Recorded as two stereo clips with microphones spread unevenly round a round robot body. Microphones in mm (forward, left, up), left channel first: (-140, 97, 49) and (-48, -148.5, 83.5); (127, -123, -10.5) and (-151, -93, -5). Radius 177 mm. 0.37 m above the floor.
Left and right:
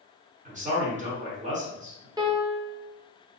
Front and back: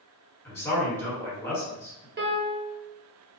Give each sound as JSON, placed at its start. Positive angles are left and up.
{"t": 0.5, "sound": "a man speaking", "azimuth_deg": -65, "distance_m": 1.3}
{"t": 2.2, "sound": "a piano", "azimuth_deg": -150, "distance_m": 0.9}